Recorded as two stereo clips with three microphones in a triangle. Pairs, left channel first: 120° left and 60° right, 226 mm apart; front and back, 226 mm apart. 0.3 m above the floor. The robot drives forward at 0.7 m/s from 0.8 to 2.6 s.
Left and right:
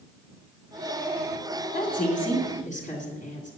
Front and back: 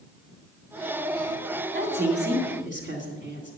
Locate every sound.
1.7 s a woman speaking: 160° left, 2.0 m; by 3.5 s 165° left, 2.5 m